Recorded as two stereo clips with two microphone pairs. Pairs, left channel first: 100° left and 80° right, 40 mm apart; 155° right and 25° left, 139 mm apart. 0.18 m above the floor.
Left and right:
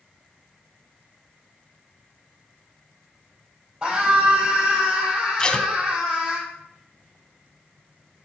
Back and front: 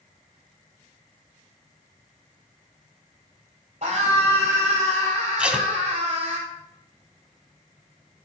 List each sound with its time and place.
3.8 s a scream: 15° right, 4 m
5.4 s tape being pulled: 95° left, 0.9 m